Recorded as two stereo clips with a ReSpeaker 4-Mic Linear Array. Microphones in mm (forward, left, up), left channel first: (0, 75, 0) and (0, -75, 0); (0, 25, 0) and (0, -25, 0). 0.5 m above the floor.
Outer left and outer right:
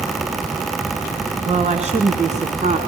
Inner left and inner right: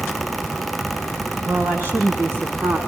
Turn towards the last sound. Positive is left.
turn(degrees=-55)  # may be behind; listen again after turning